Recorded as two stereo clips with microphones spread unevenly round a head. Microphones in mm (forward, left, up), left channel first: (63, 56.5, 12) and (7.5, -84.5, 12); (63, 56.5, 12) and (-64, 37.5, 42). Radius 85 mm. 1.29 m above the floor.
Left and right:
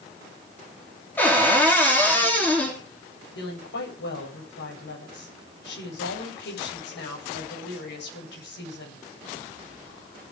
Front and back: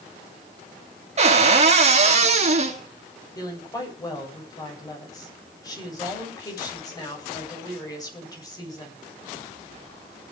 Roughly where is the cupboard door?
Behind left.